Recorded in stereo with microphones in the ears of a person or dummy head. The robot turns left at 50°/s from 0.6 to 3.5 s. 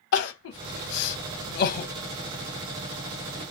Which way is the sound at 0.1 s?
60° left (ahead or behind).